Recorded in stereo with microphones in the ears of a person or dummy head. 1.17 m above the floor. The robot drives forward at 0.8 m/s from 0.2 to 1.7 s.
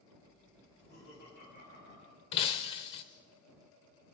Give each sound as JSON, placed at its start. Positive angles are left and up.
{"t": 0.7, "sound": "laughter", "side_deg": 55, "distance_m": 9.0}
{"t": 2.3, "sound": "breaking glass", "side_deg": 30, "distance_m": 1.0}